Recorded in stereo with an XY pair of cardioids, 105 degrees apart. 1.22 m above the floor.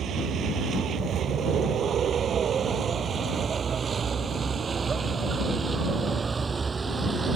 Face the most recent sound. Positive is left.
turn(degrees=-25)